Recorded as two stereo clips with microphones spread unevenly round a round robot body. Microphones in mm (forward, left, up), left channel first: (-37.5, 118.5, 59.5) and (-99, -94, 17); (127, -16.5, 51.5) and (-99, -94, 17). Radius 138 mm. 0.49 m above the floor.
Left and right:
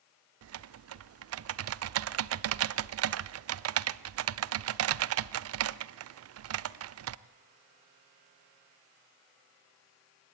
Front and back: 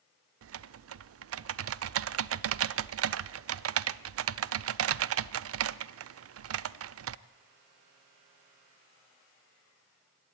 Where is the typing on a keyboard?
125° right, 0.6 m.